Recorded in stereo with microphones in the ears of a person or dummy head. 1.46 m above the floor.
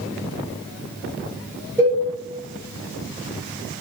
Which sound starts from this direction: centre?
A cowbell, at 1.8 s.